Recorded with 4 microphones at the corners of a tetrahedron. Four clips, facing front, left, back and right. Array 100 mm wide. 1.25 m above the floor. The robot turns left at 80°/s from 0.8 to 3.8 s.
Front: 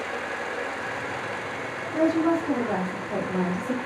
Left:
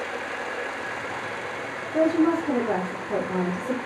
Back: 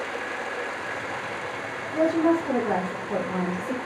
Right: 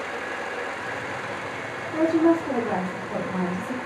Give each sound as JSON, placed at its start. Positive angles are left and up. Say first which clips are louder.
{"t": 1.9, "sound": "a woman speaking", "louder": "right 1 dB, back 1 dB", "azimuth_deg": -110, "distance_m": 1.3}